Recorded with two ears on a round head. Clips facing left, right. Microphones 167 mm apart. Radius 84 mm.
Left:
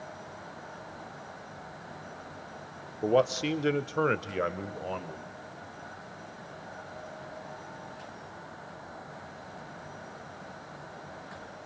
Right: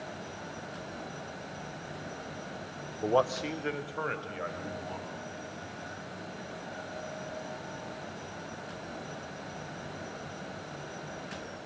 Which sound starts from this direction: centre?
A man speaking, at 3.0 s.